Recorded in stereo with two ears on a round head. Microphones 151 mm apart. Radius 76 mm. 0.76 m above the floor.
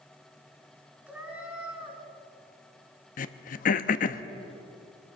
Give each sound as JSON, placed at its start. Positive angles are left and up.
{"t": 1.1, "sound": "a cat meowing", "side_deg": -10, "distance_m": 3.0}
{"t": 3.2, "sound": "throat clearing", "side_deg": 50, "distance_m": 0.8}